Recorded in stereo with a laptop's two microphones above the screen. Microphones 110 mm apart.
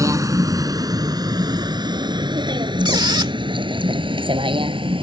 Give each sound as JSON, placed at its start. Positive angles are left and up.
{"t": 0.0, "sound": "a vehicle", "side_deg": -30}
{"t": 2.9, "sound": "a squeak", "side_deg": -45}